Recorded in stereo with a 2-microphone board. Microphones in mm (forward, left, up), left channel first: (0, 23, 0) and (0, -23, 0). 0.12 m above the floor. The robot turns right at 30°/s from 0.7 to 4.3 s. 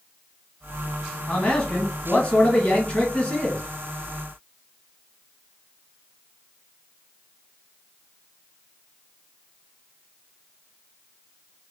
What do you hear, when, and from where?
1.3 s a man speaking: 20° left (ahead or behind), 1.9 m; by 3.6 s 25° left (ahead or behind), 1.9 m